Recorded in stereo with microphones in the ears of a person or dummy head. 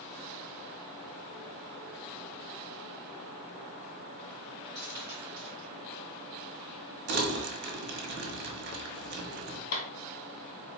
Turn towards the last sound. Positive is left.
turn(degrees=50)  # may be behind; listen again after turning